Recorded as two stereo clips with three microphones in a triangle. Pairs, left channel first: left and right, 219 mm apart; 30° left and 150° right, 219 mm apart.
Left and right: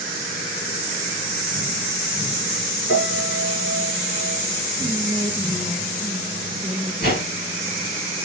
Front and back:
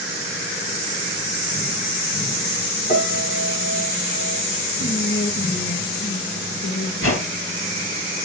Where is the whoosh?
45° left, 8 m.